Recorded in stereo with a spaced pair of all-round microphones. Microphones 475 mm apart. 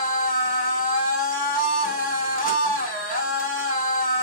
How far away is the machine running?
About 6.5 m.